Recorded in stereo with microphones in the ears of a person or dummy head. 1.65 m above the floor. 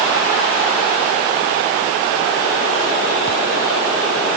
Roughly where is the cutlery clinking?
No cutlery clinking in this recording.